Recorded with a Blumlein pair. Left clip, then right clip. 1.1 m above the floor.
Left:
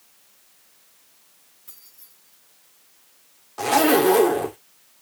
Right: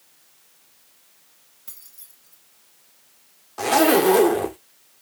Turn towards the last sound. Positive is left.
turn(degrees=-5)